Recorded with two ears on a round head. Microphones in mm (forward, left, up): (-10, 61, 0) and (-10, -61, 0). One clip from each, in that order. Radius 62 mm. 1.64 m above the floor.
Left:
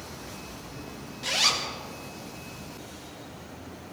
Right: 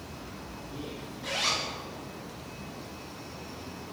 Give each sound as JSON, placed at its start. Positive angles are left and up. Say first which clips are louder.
{"t": 1.2, "sound": "a zipper", "louder": "left 5 dB", "side_deg": 70, "distance_m": 1.8}